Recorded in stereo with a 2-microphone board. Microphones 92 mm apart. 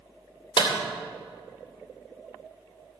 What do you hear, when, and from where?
0.6 s a clap: 55° left (ahead or behind), 3 m